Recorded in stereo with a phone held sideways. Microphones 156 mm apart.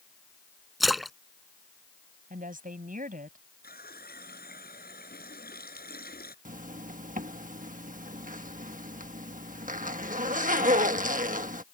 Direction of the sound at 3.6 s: 80° left.